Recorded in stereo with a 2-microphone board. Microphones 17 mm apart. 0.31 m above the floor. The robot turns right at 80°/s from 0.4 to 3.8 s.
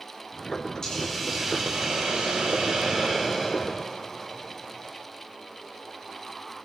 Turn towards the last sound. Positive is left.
turn(degrees=20)